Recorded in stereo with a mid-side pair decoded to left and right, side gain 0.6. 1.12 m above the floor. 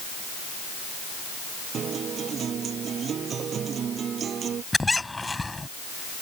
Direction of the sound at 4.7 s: 10° left.